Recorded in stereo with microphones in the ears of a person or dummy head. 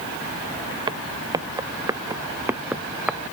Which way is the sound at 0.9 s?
25° right (ahead or behind).